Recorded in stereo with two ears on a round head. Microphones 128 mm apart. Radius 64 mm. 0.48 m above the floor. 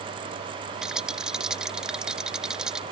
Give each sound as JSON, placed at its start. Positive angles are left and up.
{"t": 0.8, "sound": "a rattle", "side_deg": -5}